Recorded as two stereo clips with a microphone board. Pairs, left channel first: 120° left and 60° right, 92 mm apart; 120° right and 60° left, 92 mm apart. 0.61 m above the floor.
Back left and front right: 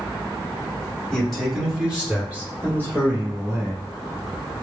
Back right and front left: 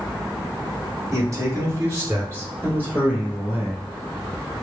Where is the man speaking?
45° left, 1.3 m; by 3.8 s 10° right, 2.5 m.